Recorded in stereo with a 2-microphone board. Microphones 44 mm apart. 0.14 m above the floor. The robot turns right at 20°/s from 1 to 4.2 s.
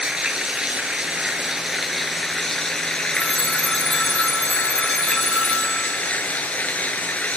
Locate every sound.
0.0 s running water: 25° right, 0.9 m; by 7.4 s 40° left, 0.9 m
3.1 s a phone ringing: 15° right (ahead or behind), 0.6 m; by 6.6 s 20° right (ahead or behind), 0.6 m